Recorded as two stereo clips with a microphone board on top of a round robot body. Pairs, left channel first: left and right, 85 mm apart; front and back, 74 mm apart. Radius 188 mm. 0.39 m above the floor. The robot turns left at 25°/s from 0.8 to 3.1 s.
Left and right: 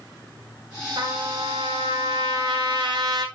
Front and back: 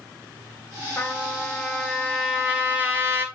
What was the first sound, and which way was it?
A trumpet, 70° right.